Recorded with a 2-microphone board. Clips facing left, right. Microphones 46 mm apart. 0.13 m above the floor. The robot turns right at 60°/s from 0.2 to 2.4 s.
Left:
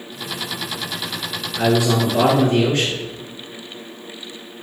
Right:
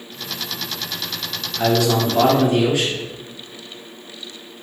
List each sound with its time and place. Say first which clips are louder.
1.6 s a man speaking: even; 140° left, 1.7 m; by 3.0 s 170° right, 1.7 m